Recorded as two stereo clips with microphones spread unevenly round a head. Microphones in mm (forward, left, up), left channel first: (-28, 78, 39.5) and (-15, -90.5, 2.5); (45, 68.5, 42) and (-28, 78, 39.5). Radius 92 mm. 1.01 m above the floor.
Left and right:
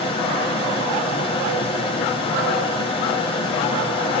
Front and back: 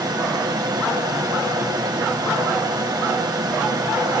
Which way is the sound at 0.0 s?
155° left.